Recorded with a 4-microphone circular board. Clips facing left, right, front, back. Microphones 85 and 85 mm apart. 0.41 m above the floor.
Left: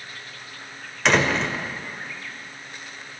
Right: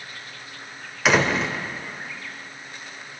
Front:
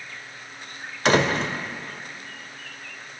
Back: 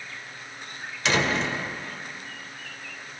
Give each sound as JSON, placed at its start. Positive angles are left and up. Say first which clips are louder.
{"t": 1.1, "sound": "a door slam", "louder": "even, front 4 dB", "azimuth_deg": -10, "distance_m": 1.0}